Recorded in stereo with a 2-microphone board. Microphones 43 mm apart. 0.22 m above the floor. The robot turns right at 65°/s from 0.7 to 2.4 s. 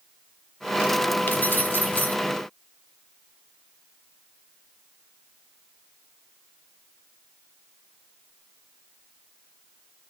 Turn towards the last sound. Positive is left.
turn(degrees=140)